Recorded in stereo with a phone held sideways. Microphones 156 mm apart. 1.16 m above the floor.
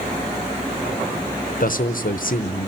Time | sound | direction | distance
1.6 | a man speaking | 65° left (ahead or behind) | 0.7 m